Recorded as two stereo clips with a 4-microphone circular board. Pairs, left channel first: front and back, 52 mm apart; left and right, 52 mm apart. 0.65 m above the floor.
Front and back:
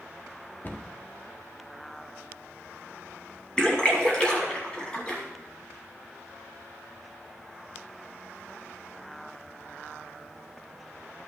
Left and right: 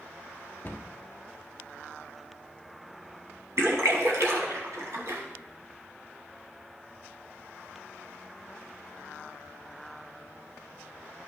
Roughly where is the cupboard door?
Ahead left.